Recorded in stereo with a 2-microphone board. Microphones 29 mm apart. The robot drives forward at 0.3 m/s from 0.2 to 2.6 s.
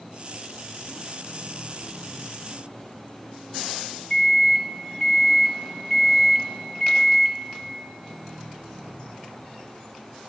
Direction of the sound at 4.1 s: 20° left (ahead or behind).